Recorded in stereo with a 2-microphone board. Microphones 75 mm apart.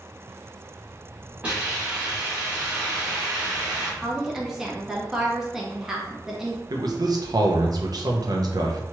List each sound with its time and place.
1.4 s a hiss: 20° right (ahead or behind), 1.3 m
4.0 s a woman speaking: 5° right (ahead or behind), 0.8 m
6.7 s a man speaking: 60° right (ahead or behind), 0.6 m